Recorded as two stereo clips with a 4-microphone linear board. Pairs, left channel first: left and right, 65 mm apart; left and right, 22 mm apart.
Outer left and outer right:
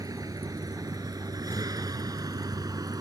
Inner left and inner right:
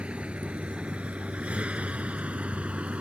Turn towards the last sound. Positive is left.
turn(degrees=-80)